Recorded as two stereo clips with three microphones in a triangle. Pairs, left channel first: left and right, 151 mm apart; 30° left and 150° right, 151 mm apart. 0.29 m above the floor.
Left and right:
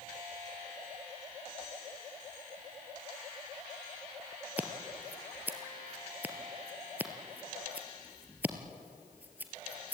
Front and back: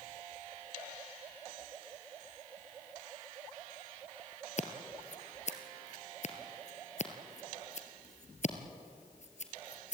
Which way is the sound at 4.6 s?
10° right.